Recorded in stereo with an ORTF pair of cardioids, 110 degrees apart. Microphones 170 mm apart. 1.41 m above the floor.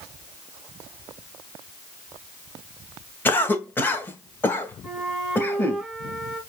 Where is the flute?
Straight ahead, 1.6 m.